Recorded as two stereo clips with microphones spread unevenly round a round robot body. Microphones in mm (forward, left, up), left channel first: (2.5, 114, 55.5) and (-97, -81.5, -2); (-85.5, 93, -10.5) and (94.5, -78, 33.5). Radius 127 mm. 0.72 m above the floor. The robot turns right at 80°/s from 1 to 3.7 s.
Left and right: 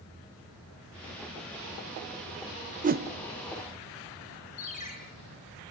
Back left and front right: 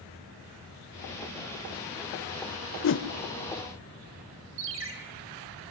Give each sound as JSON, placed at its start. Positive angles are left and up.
{"t": 2.8, "sound": "a whoosh", "azimuth_deg": 180, "distance_m": 0.8}
{"t": 4.6, "sound": "a ringtone", "azimuth_deg": 0, "distance_m": 5.0}